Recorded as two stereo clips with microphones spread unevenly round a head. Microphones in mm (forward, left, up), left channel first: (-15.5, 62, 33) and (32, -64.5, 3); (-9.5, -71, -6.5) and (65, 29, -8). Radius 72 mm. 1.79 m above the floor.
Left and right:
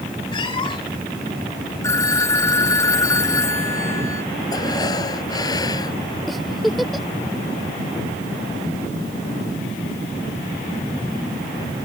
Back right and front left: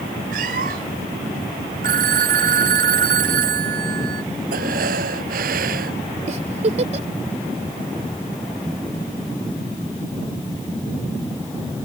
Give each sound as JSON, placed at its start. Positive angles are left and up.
{"t": 0.3, "sound": "a cat meowing", "azimuth_deg": 60}
{"t": 1.8, "sound": "a phone ringing", "azimuth_deg": 40}
{"t": 4.5, "sound": "breathing", "azimuth_deg": 50}
{"t": 6.3, "sound": "a giggle", "azimuth_deg": 25}